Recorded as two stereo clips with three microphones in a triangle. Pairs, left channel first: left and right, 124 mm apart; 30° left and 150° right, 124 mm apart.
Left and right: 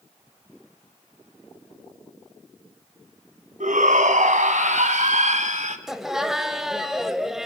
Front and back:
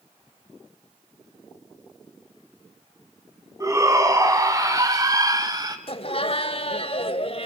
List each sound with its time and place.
3.6 s a shout: 85° right, 3.5 m; by 5.8 s 95° right, 2 m
5.9 s laughter: 5° right, 1.6 m